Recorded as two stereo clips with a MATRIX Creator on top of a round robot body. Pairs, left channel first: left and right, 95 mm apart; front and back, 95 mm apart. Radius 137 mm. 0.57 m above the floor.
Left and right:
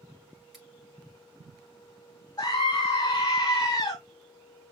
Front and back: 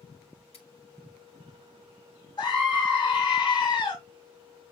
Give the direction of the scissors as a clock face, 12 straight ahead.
12 o'clock.